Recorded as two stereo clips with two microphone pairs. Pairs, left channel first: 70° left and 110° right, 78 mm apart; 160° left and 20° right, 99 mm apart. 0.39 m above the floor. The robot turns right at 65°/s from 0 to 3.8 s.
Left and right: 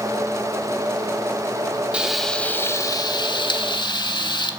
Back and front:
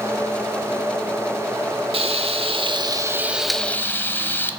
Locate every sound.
1.9 s frying: 35° right, 0.6 m; by 4.5 s 85° left, 0.6 m